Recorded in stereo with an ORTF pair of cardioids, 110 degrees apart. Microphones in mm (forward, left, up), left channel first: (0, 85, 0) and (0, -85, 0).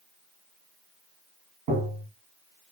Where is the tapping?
65° right, 1.2 m.